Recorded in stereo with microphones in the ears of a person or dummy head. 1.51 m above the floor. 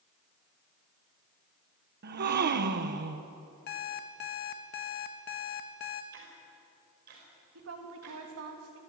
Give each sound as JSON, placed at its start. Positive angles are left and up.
{"t": 2.0, "sound": "a gasp", "side_deg": -55, "distance_m": 1.1}
{"t": 3.7, "sound": "an alarm clock", "side_deg": 55, "distance_m": 1.2}
{"t": 6.1, "sound": "ticking", "side_deg": -55, "distance_m": 5.5}
{"t": 7.5, "sound": "a woman speaking", "side_deg": -80, "distance_m": 3.0}